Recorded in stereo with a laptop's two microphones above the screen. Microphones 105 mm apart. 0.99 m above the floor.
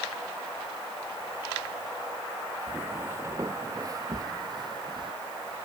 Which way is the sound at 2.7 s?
15° right (ahead or behind).